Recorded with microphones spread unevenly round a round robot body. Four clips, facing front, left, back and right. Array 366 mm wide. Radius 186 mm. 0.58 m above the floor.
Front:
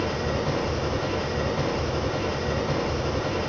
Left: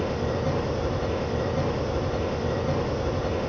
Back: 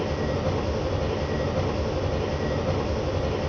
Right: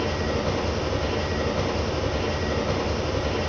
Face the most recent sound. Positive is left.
turn(degrees=165)